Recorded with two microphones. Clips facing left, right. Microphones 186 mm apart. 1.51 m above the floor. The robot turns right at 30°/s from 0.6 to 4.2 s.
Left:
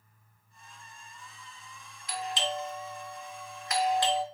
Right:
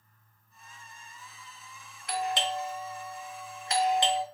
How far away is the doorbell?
About 0.5 m.